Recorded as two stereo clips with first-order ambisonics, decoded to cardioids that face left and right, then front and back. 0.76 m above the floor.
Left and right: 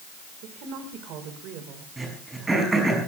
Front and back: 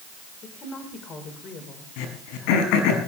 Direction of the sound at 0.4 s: 60° right.